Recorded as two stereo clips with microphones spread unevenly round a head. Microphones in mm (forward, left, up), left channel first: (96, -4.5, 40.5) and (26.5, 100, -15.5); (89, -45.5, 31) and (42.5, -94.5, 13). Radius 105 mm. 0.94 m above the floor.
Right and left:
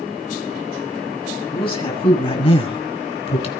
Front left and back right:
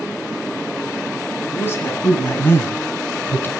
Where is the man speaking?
10° right, 9 m; by 3.5 s 15° right, 6.5 m.